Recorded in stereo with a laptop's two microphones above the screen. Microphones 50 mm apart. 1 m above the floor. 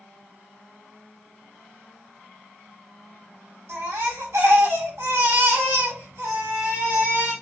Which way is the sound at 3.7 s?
70° right (ahead or behind).